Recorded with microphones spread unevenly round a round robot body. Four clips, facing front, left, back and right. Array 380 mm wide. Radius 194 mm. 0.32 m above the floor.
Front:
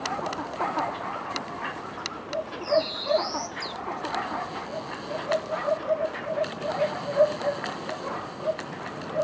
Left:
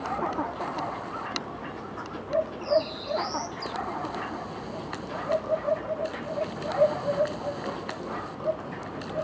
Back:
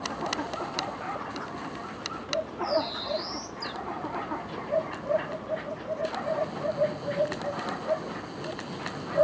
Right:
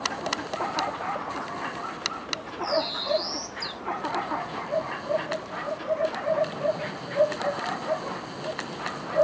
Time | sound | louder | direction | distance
2.6 | a bird | left 2 dB, front 5 dB | 10° left | 2 m